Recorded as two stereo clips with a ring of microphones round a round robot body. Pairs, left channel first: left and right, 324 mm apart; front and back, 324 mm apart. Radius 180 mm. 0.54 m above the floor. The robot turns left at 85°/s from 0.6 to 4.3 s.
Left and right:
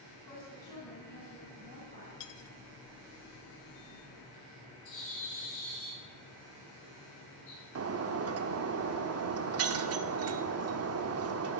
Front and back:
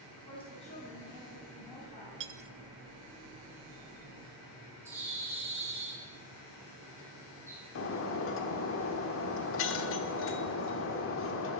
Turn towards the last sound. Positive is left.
turn(degrees=-50)